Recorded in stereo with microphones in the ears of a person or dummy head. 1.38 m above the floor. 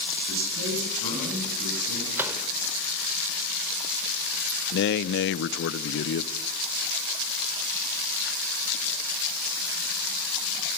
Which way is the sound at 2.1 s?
10° right (ahead or behind).